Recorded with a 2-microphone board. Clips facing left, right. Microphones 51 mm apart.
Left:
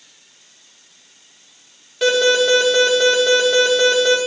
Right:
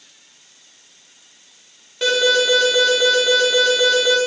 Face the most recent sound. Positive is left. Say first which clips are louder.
# left 2 dB
turn(degrees=0)  # may be behind; listen again after turning